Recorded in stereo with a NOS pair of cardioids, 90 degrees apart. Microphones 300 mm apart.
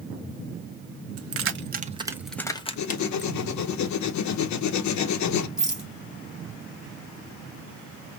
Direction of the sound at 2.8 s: 70° left.